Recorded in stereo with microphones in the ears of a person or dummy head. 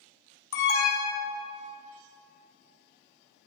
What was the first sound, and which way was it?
An alarm, 65° left (ahead or behind).